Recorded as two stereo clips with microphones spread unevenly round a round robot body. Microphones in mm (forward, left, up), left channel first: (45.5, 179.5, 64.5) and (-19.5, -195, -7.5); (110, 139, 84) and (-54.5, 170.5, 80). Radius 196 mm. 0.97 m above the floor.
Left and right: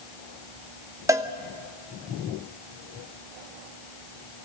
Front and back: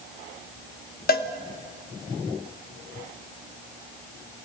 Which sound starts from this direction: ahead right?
A cowbell, at 1.1 s.